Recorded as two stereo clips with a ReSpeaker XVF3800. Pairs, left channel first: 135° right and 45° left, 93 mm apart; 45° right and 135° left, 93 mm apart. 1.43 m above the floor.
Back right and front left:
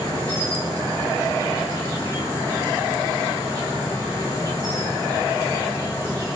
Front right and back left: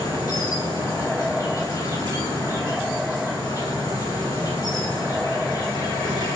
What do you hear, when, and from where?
0.0 s an insect: 85° right, 2.5 m